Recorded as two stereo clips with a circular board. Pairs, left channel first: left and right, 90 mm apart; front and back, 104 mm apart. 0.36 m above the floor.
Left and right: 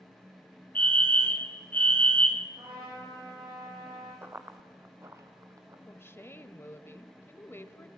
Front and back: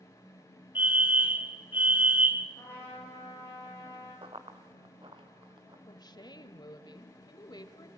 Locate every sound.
0.8 s a fire alarm: 135° left, 1.9 m
2.6 s a trumpet: 70° right, 10 m
4.2 s running footsteps: 155° right, 1.4 m; by 5.8 s 140° right, 3 m
5.9 s a woman speaking: 30° left, 1.4 m